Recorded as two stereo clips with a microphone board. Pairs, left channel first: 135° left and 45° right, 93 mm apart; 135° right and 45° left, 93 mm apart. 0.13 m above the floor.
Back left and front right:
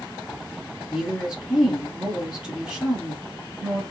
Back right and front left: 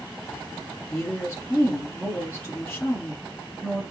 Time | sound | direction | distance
0.9 | a woman speaking | 120° right | 1.6 m